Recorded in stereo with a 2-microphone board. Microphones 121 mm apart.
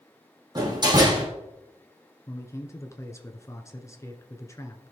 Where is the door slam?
35° right (ahead or behind), 4 m.